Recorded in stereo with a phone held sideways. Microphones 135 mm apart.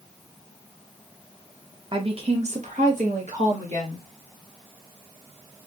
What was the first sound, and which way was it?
A woman speaking, 35° right (ahead or behind).